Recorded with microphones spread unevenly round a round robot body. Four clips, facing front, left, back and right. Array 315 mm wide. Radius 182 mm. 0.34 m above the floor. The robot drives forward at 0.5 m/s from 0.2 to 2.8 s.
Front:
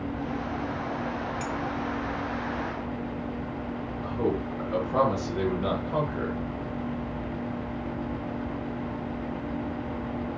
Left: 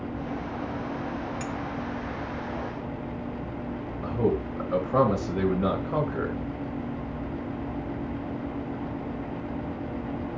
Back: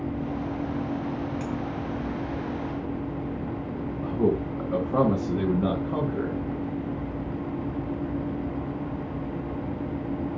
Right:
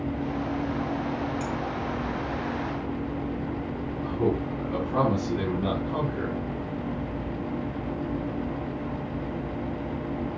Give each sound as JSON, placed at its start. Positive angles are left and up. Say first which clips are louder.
{"t": 1.4, "sound": "a clink", "louder": "right 2 dB, even", "azimuth_deg": 90, "distance_m": 1.2}
{"t": 4.0, "sound": "a man speaking", "louder": "left 1 dB, back 4 dB", "azimuth_deg": 145, "distance_m": 5.0}